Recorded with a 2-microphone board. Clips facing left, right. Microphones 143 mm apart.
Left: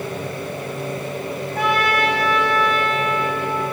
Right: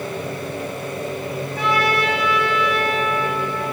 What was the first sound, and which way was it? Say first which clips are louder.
A trumpet: left 1 dB; 60° left (ahead or behind).